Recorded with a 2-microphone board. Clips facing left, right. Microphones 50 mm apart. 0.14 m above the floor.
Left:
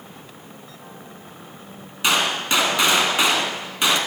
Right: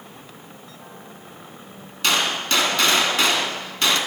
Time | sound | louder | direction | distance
2.0 | a gunshot | left 1 dB | 15° left (ahead or behind) | 1.3 m